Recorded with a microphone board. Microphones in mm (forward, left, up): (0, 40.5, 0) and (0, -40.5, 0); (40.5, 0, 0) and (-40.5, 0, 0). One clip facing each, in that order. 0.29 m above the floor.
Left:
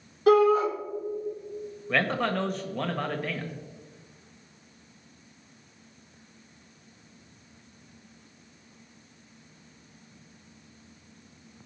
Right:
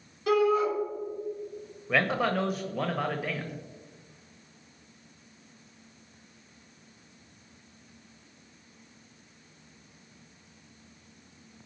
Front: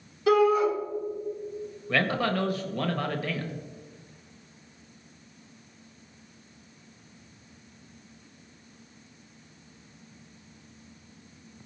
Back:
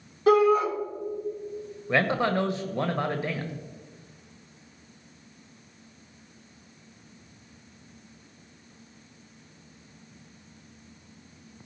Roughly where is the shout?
Behind left.